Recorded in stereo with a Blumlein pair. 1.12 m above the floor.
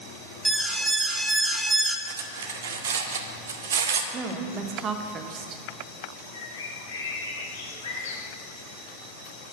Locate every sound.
0.5 s an alarm: 5° right, 0.6 m
2.1 s cutlery clinking: 65° right, 0.7 m
4.1 s a woman speaking: 25° right, 0.9 m
6.3 s a bird: 65° left, 1.3 m